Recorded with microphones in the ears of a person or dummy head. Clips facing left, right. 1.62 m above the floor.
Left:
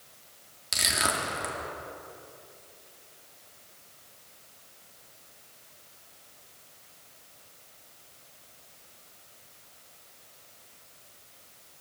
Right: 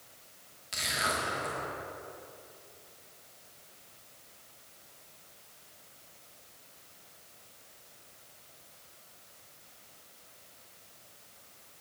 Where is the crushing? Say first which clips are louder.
Left 3 dB; 70° left (ahead or behind), 2 m.